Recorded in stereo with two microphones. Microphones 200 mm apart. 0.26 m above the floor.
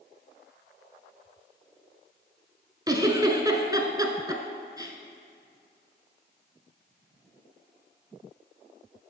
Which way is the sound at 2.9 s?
20° right (ahead or behind).